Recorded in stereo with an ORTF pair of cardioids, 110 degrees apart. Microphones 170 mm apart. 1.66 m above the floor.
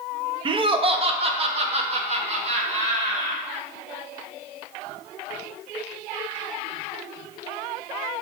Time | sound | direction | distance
0.5 | laughter | 30° right | 0.8 m